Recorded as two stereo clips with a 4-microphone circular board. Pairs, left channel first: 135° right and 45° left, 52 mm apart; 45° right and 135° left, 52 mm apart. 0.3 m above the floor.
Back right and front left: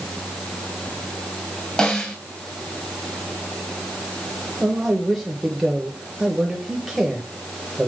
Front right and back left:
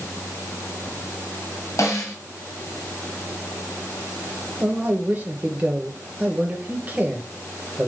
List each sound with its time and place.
1.8 s a snare drum: 60° right, 2 m
4.6 s a man speaking: 120° left, 1.1 m